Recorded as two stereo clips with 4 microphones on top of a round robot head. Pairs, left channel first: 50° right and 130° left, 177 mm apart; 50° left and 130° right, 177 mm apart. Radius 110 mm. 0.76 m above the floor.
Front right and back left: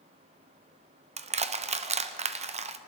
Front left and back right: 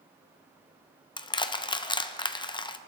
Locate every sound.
1.2 s crushing: 100° left, 0.8 m